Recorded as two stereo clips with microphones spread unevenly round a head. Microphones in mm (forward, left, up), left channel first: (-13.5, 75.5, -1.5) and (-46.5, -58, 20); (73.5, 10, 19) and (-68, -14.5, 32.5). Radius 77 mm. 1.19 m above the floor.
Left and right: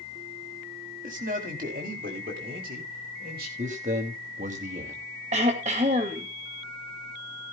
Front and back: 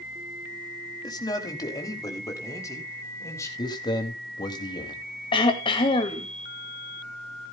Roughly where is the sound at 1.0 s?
Ahead right.